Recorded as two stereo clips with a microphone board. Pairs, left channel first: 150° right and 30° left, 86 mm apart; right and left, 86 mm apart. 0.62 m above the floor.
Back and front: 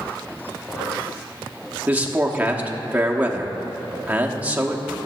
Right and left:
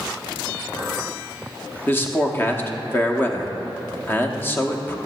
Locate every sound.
1.9 s a man speaking: 30° right, 0.9 m